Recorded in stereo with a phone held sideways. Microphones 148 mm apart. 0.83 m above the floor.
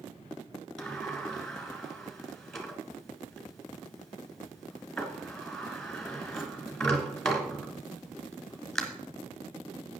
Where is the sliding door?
5° left (ahead or behind), 1.7 m.